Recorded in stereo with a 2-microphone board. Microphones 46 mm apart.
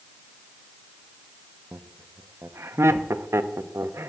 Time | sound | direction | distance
1.7 | laughter | 65° right (ahead or behind) | 0.6 m